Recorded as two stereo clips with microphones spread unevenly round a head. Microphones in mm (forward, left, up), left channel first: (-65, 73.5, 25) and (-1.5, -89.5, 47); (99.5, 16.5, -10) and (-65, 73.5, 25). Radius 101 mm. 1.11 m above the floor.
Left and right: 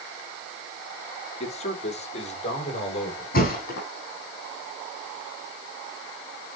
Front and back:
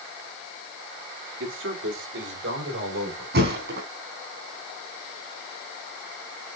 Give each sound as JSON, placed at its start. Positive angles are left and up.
{"t": 1.4, "sound": "a man speaking", "azimuth_deg": 165, "distance_m": 2.5}
{"t": 3.3, "sound": "a thud", "azimuth_deg": 150, "distance_m": 3.5}